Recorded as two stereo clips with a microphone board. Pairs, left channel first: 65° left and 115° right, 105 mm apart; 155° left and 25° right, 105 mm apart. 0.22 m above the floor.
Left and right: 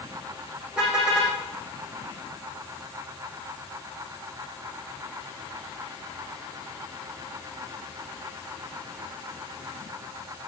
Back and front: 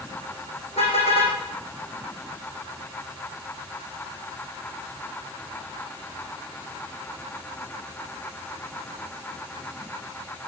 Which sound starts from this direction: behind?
A car horn, at 0.8 s.